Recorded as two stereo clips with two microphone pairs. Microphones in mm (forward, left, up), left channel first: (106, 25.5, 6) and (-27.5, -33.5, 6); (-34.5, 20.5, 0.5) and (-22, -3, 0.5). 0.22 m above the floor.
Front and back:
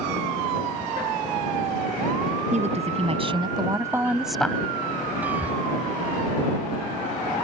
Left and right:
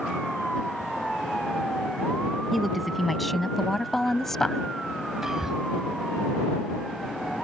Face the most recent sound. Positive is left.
turn(degrees=-95)